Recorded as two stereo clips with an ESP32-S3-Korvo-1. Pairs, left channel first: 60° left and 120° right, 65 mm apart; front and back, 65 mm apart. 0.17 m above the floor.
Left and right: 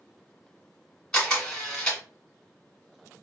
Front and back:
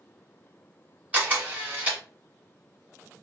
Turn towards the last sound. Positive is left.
turn(degrees=135)